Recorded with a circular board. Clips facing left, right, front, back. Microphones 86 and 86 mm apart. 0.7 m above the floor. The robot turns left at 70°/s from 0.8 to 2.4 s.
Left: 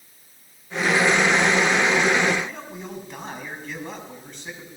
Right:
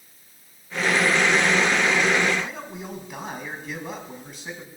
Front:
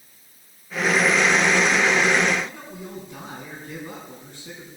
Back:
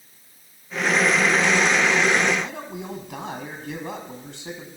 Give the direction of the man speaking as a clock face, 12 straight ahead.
6 o'clock.